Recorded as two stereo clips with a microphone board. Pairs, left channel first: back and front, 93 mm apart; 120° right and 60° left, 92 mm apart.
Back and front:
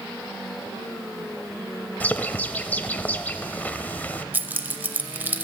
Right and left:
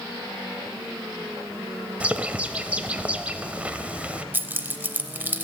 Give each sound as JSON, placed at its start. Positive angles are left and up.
{"t": 2.0, "sound": "a bird", "azimuth_deg": 125, "distance_m": 0.6}
{"t": 4.3, "sound": "keys jangling", "azimuth_deg": 30, "distance_m": 0.7}